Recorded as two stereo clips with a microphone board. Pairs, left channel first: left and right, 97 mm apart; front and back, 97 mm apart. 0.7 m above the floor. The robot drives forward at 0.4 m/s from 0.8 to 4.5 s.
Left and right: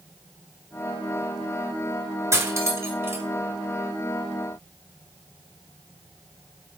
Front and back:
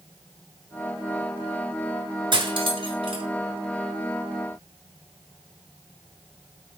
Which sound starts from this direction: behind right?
Cutlery clinking, at 2.3 s.